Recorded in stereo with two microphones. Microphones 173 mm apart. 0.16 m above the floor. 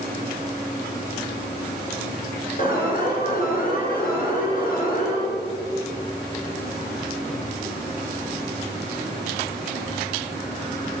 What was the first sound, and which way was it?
An alarm, 55° left (ahead or behind).